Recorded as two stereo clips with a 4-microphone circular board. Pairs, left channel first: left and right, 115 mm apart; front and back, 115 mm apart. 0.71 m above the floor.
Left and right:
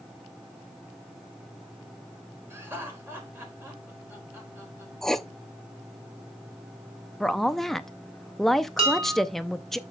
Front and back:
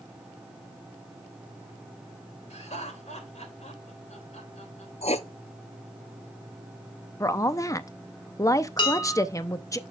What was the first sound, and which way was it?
Laughter, 20° right.